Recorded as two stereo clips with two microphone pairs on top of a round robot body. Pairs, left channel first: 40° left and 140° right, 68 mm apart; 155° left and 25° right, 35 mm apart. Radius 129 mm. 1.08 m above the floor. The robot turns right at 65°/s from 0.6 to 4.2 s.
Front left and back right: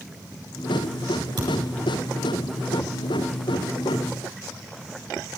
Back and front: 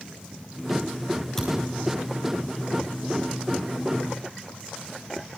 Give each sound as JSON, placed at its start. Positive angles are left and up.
{"t": 1.4, "sound": "a thud", "azimuth_deg": -130, "distance_m": 10.0}